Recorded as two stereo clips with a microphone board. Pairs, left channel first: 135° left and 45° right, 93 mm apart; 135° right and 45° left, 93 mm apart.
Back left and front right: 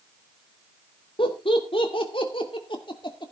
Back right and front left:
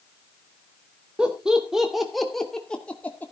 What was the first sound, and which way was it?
Laughter, 125° left.